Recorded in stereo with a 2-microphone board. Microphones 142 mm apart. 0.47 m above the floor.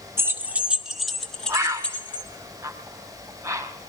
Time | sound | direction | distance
0.2 | keys jangling | 20° right (ahead or behind) | 0.7 m
1.5 | a bird | 20° right (ahead or behind) | 0.8 m